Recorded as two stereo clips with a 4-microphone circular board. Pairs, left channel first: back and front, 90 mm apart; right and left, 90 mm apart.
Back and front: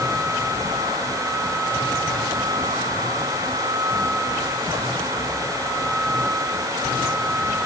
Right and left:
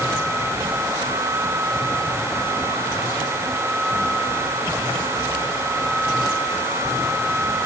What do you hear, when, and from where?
Only background noise.